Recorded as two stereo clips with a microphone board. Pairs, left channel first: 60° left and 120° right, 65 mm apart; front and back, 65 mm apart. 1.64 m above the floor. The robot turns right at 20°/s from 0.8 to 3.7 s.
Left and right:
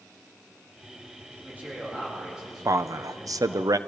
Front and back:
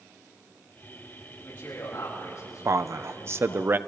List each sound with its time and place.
1.3 s a man speaking: 60° right, 9 m; by 3.6 s 15° right, 9 m
2.6 s a man speaking: 150° right, 0.8 m; by 3.8 s 130° right, 0.8 m